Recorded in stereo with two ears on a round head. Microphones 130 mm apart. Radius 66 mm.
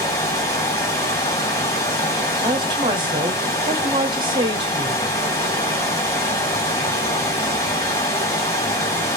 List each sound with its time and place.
0.0 s running water: 20° left (ahead or behind), 2.0 m
2.4 s a woman speaking: 35° right (ahead or behind), 0.9 m